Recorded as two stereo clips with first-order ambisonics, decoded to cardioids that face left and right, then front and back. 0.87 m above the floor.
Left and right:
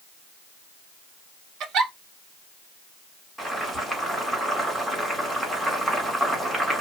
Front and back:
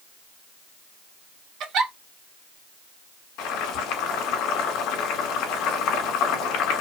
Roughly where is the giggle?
Behind right.